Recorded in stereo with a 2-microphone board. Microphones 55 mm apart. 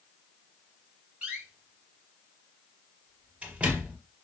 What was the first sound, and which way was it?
A door slam, 20° right (ahead or behind).